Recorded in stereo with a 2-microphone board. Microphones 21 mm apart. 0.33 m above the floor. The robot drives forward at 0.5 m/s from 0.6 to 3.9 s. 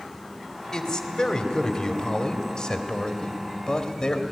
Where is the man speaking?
25° left (ahead or behind), 1.9 m; by 4.2 s 35° left (ahead or behind), 1.5 m.